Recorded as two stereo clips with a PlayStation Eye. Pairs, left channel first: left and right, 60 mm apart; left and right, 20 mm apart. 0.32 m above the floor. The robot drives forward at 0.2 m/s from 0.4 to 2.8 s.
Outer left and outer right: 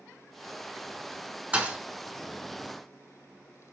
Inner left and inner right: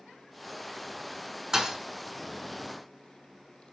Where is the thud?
25° right (ahead or behind), 0.5 m.